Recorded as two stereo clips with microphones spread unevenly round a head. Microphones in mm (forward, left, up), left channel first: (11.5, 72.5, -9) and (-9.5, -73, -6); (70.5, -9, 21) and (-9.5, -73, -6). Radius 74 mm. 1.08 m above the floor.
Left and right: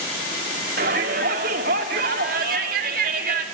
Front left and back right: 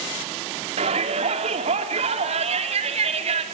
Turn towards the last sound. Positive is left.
turn(degrees=-130)